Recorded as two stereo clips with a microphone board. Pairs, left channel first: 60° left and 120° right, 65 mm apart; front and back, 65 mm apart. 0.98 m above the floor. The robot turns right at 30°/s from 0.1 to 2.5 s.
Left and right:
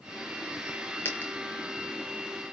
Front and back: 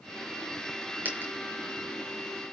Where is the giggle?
No giggle in this recording.